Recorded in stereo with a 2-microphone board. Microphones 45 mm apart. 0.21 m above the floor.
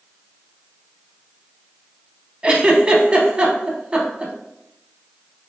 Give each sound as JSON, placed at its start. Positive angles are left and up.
{"t": 2.4, "sound": "a giggle", "side_deg": -25, "distance_m": 0.5}